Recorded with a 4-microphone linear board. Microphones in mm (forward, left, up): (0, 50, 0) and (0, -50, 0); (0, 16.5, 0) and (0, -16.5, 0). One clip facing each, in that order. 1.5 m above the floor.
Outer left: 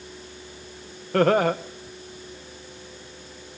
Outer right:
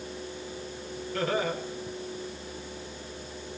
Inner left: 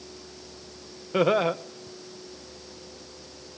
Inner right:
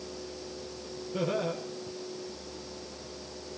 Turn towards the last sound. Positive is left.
turn(degrees=65)  # may be behind; listen again after turning